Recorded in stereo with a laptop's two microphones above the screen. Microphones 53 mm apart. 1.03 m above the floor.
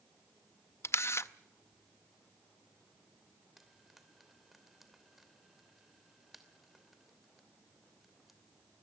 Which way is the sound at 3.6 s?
5° right (ahead or behind).